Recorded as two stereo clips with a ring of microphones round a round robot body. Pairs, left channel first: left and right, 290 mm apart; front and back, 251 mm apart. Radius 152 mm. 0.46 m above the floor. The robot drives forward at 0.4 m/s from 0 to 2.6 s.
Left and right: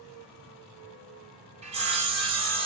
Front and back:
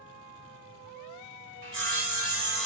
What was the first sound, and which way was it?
Sawing, 155° right.